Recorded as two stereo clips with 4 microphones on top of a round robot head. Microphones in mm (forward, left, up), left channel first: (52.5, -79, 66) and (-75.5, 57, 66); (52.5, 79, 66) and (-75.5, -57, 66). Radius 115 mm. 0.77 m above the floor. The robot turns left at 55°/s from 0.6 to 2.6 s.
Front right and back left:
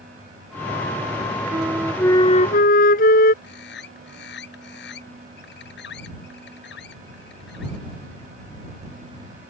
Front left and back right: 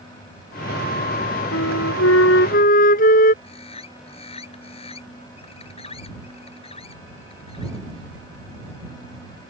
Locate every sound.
1.5 s a flute: 60° left; by 3.3 s straight ahead
3.4 s a bird: 15° right